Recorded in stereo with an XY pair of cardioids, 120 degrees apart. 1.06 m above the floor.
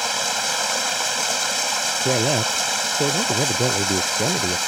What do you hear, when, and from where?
0.0 s running water: straight ahead
2.0 s a man speaking: 10° right